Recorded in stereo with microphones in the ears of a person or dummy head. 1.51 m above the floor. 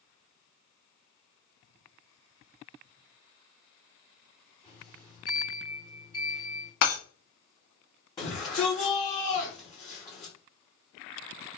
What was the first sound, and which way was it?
A sliding door, 15° right (ahead or behind).